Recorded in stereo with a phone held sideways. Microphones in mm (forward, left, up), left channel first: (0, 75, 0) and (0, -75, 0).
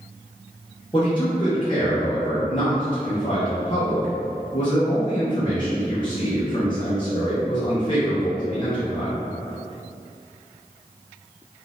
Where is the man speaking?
35° left (ahead or behind), 0.7 m.